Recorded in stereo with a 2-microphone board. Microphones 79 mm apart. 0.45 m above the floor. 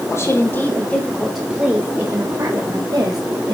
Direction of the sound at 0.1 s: 40° left (ahead or behind).